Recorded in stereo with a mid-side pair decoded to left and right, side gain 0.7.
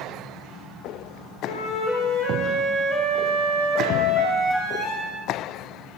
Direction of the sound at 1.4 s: 40° left.